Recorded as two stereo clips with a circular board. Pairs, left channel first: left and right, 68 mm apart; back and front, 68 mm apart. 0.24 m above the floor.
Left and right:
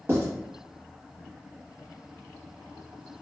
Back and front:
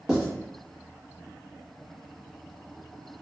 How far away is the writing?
About 1.0 m.